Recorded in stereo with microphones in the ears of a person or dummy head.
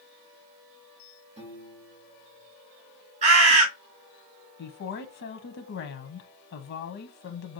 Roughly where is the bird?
Right.